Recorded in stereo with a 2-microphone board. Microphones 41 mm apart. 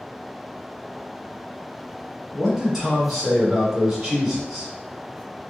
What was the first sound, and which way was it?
A man speaking, 10° right (ahead or behind).